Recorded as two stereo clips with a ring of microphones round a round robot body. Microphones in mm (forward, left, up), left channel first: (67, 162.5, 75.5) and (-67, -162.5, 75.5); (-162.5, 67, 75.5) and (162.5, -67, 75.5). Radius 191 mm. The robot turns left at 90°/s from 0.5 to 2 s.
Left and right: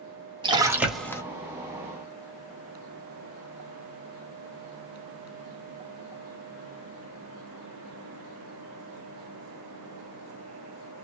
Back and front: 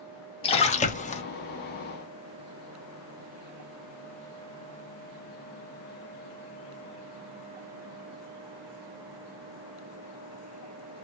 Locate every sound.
0.4 s a splash: 165° right, 0.7 m; by 1.2 s 130° left, 0.7 m